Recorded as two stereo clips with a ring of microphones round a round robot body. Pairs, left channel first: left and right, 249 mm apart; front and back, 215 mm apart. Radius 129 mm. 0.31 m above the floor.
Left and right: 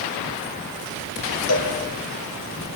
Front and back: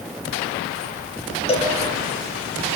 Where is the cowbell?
65° left, 7 m.